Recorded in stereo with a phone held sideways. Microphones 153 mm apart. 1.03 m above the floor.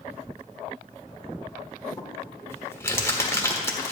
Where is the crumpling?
20° left (ahead or behind), 1.4 m.